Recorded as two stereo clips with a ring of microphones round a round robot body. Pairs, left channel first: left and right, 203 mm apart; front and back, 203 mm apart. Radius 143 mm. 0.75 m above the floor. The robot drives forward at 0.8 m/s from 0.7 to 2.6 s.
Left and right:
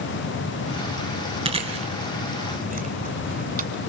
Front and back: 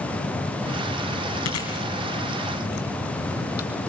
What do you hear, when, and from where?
1.4 s chewing: 30° right, 2.5 m; by 3.7 s 40° right, 1.9 m